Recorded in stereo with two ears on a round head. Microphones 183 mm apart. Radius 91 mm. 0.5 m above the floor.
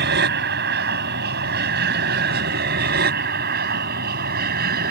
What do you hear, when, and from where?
0.0 s an aircraft: 55° right (ahead or behind); by 4.9 s 50° right (ahead or behind)